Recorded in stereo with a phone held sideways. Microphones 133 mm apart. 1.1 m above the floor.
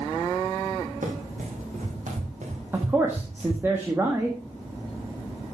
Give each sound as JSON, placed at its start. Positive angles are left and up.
{"t": 1.0, "sound": "running footsteps", "side_deg": -75, "distance_m": 4.5}
{"t": 2.7, "sound": "a man speaking", "side_deg": -15, "distance_m": 1.4}